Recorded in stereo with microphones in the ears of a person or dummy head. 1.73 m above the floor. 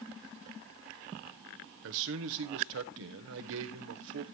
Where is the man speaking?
65° right (ahead or behind), 1.1 m.